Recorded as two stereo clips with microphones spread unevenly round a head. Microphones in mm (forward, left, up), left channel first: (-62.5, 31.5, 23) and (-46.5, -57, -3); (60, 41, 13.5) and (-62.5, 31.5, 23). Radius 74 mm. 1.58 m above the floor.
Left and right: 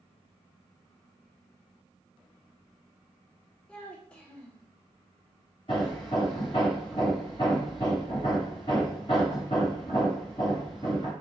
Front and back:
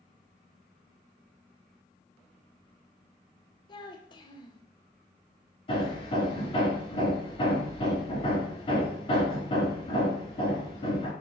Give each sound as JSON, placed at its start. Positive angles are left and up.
{"t": 3.7, "sound": "a child speaking", "azimuth_deg": 45, "distance_m": 0.7}
{"t": 5.7, "sound": "hammering", "azimuth_deg": 45, "distance_m": 3.0}